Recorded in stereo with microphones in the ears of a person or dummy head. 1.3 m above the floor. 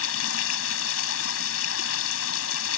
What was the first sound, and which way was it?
Running water, 85° left.